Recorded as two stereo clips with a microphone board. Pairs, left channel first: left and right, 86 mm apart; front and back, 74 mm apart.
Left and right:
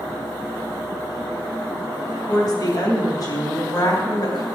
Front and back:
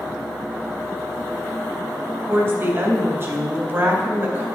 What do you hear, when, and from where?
2.3 s a woman speaking: 125° left, 3.5 m